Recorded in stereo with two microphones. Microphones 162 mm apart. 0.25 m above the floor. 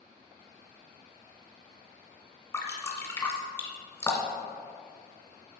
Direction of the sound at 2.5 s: 20° left (ahead or behind).